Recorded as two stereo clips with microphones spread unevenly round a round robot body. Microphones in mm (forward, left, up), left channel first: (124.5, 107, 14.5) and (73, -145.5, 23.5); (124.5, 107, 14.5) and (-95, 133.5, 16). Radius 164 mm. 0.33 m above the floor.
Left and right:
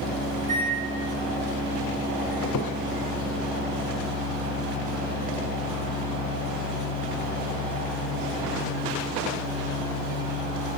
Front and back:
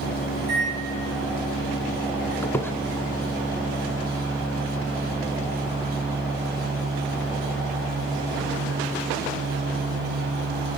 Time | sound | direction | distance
0.4 | a microwave | 60° left | 3 m
2.4 | a squeak | 75° left | 0.6 m